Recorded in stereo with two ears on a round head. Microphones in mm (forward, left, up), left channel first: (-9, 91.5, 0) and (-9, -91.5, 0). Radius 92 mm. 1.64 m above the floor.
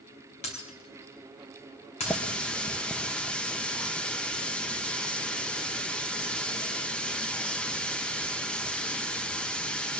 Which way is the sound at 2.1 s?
5° left (ahead or behind).